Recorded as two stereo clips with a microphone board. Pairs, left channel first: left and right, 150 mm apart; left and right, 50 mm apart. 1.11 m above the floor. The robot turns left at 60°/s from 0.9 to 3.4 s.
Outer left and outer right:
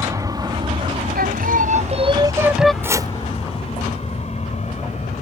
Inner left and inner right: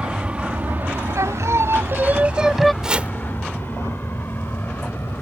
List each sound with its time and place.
0.0 s an aircraft: 20° right (ahead or behind); by 5.2 s 50° left (ahead or behind)
1.1 s singing: 90° right; by 2.7 s 175° left
2.8 s chopping: 15° right (ahead or behind); by 3.1 s 30° right (ahead or behind)